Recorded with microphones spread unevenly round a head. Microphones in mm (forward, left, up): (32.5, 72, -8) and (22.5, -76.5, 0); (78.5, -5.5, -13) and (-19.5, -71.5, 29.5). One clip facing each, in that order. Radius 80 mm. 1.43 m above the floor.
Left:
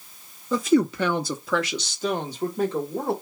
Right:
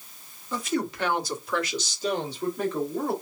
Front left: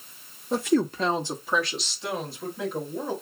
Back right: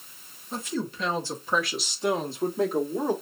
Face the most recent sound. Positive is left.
turn(degrees=155)